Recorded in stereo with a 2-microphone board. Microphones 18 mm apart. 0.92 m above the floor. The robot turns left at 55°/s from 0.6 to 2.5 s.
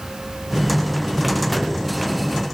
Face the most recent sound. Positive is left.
No sound to turn to.